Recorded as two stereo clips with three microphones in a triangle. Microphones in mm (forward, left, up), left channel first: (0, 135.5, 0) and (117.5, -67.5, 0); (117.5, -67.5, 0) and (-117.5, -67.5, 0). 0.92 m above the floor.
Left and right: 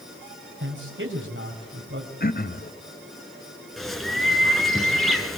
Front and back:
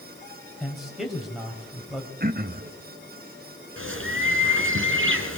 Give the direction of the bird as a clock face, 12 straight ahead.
5 o'clock.